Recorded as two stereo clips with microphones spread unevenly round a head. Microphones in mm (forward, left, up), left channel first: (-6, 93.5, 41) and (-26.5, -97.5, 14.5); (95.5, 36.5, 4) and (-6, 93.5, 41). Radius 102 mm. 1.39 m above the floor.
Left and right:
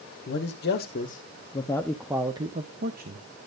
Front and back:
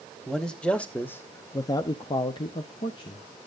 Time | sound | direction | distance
0.3 | a man speaking | 50° left | 1.3 m